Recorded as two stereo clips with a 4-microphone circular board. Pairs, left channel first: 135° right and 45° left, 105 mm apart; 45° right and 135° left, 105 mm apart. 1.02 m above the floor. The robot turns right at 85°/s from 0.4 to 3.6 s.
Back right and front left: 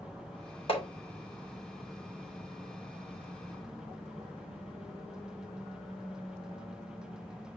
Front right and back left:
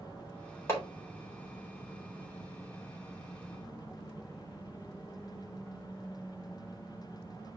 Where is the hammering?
110° right, 3.5 m; by 0.9 s 95° right, 3.5 m.